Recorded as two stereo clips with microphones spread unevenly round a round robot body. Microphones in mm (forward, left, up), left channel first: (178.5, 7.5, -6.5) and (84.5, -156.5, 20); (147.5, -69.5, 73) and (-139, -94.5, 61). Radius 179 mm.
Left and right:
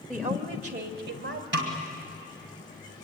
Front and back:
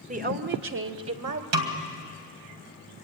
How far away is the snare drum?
About 2 m.